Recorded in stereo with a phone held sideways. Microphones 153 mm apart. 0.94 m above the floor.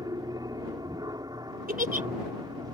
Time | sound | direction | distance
0.0 | an aircraft | 25° right (ahead or behind) | ?
1.7 | a giggle | 80° right | ?